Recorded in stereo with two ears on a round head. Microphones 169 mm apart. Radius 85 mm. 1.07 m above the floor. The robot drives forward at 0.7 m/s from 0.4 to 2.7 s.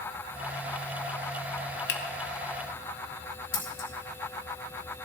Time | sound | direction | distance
1.9 | a finger snap | 60° left (ahead or behind) | 1.2 m
3.5 | scissors | 90° left | 3.5 m